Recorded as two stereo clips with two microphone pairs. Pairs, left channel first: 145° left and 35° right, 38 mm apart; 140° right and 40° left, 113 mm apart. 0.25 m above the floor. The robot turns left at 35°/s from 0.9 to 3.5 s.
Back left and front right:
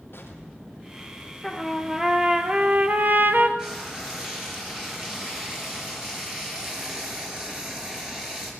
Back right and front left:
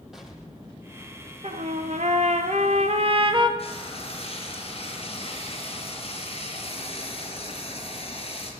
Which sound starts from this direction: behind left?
An explosion, at 0.1 s.